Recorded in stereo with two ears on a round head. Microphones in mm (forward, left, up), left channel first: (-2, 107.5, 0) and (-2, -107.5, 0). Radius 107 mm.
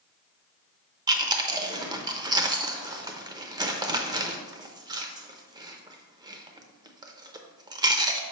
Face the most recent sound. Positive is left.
turn(degrees=-15)  # may be behind; listen again after turning